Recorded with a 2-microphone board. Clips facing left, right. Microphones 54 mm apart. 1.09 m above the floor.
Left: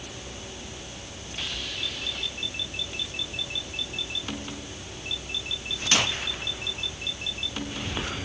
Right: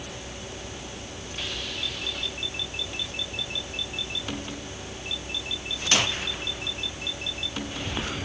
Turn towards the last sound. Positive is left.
No sound to turn to.